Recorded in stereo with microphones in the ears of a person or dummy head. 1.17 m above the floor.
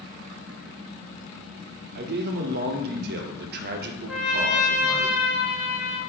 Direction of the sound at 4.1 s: 5° right (ahead or behind).